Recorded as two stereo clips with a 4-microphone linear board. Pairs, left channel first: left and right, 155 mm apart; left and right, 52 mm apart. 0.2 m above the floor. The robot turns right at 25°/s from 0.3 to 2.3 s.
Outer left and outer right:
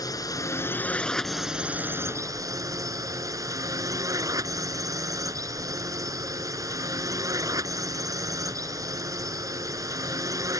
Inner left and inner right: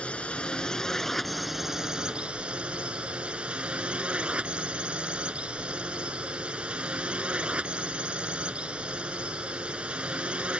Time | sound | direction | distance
0.0 | a drone | 155° left | ?